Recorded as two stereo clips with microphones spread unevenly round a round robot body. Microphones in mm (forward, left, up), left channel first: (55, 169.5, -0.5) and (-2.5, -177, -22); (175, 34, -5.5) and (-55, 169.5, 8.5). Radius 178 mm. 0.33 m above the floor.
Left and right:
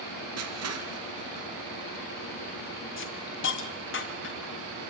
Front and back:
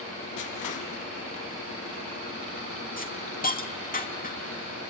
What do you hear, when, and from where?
0.4 s crushing: 50° right, 2.5 m
3.0 s a hiss: 25° left, 2.5 m